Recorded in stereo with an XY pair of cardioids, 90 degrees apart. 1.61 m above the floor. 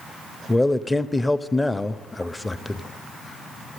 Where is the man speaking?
15° left, 0.8 m.